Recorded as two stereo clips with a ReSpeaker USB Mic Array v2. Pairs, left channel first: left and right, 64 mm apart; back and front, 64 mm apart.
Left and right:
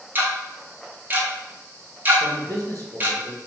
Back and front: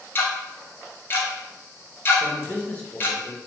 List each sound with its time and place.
0.1 s ticking: 140° right, 0.5 m
2.2 s a man speaking: 115° right, 0.9 m